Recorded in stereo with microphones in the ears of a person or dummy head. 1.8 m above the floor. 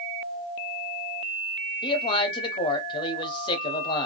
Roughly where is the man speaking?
Left.